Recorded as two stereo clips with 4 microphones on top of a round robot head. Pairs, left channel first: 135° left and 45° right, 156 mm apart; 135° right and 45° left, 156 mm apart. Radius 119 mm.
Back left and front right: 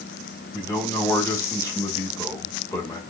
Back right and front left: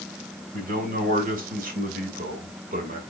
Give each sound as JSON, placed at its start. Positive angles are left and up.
{"t": 0.5, "sound": "a man speaking", "azimuth_deg": 60, "distance_m": 3.0}